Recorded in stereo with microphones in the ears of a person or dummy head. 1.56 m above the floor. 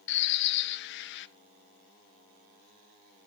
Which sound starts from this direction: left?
A bird, at 0.1 s.